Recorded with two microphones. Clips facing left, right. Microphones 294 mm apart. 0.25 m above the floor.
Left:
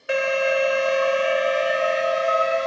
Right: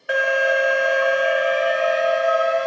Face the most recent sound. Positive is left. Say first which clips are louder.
# even
turn(degrees=30)  # may be behind; listen again after turning